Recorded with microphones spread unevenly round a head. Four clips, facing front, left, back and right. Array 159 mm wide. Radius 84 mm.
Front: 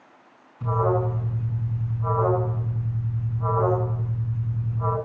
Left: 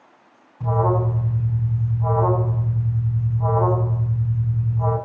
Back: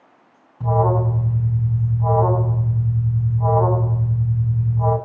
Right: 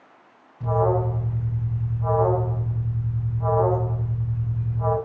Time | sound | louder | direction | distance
0.6 | an alarm | left 1 dB, back 4 dB | 165° left | 8 m